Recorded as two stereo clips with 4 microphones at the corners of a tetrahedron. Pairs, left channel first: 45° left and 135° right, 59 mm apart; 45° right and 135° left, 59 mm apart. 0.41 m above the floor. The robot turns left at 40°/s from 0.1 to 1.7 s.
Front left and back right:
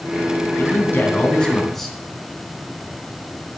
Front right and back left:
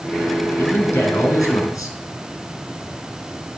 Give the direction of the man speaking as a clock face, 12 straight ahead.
12 o'clock.